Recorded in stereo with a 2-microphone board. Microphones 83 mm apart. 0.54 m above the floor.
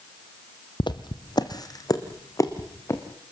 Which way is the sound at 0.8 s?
70° left (ahead or behind).